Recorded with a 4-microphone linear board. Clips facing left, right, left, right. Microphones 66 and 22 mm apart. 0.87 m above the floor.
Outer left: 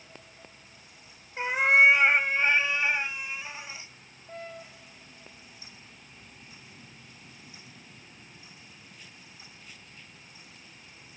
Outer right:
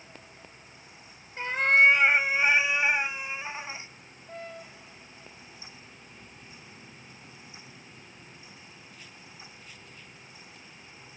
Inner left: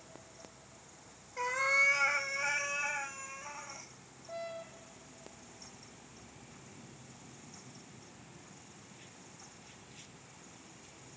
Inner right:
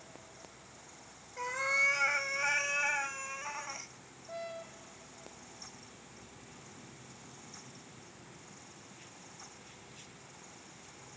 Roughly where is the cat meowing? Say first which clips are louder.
Outer left 1 dB, inner left 2 dB; centre.